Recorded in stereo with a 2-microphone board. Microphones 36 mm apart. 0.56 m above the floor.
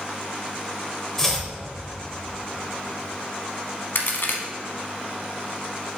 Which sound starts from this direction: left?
A crack, at 4.0 s.